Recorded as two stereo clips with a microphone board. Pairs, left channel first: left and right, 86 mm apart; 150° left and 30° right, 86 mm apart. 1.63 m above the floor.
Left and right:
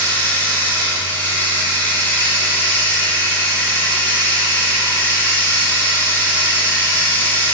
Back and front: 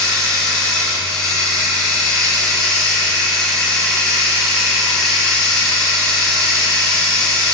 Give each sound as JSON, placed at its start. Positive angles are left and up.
{"t": 0.0, "sound": "running water", "azimuth_deg": 75, "distance_m": 0.9}